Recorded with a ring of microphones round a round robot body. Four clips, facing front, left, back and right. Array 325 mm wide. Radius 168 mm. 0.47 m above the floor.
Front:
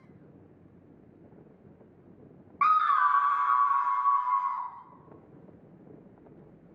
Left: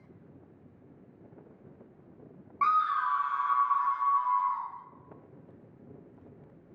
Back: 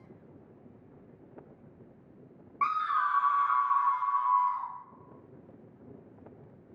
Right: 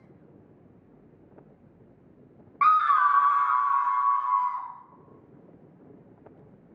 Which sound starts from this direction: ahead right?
A scream, at 2.6 s.